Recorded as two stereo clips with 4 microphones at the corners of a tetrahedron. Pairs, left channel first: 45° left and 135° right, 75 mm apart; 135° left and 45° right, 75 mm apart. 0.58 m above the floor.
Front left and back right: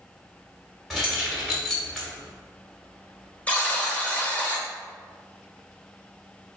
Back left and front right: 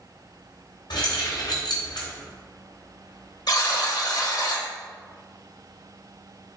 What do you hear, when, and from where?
0.9 s keys jangling: 135° left, 1.6 m
3.5 s a buzzer: 115° left, 1.0 m